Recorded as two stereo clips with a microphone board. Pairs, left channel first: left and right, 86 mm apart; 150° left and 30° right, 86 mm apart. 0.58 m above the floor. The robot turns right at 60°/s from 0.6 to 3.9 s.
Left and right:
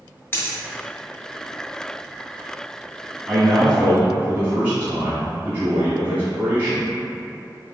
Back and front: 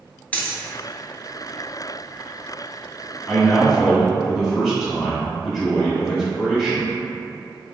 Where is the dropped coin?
105° left, 0.6 m.